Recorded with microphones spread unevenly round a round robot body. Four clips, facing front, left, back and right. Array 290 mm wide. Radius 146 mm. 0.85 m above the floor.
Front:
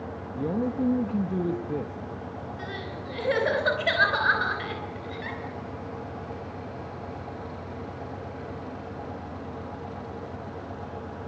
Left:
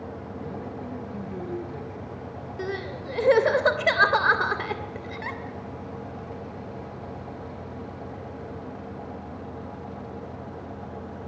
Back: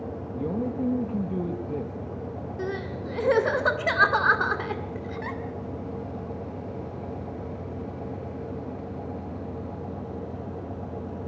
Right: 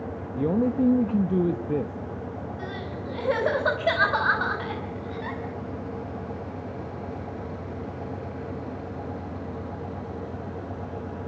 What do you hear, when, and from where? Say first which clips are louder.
0.4 s a man speaking: right 15 dB, front 2 dB; 75° right, 1.3 m
2.6 s crying: left 2 dB, back 4 dB; 140° left, 3 m